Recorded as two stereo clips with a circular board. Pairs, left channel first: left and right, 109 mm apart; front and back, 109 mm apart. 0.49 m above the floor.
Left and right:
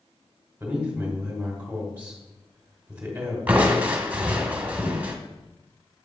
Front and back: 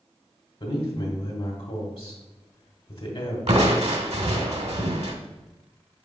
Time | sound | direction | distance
0.6 | a man speaking | 15° right | 1.7 m
3.5 | crushing | 165° right | 0.9 m